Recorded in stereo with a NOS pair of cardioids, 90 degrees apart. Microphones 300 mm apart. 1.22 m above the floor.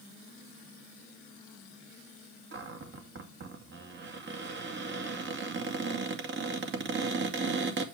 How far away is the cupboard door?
About 2.0 m.